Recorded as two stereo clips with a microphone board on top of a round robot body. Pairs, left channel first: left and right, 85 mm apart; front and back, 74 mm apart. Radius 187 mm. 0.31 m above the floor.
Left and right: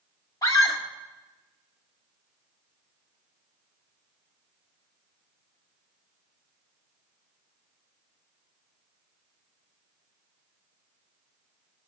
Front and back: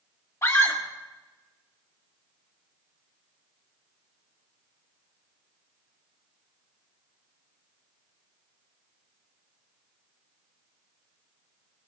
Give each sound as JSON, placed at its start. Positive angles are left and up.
{"t": 0.4, "sound": "a scream", "azimuth_deg": 45, "distance_m": 2.0}